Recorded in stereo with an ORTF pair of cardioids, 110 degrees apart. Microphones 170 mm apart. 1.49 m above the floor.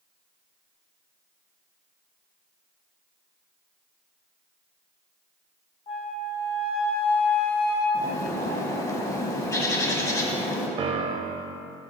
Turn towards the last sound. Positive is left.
turn(degrees=-35)